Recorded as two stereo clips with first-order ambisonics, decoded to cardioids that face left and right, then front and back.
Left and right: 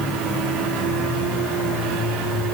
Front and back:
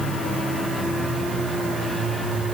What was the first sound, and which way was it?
Only background noise.